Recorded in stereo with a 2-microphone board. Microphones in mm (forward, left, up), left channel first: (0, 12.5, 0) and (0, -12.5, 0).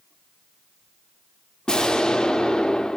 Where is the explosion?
30° left (ahead or behind), 1.3 m.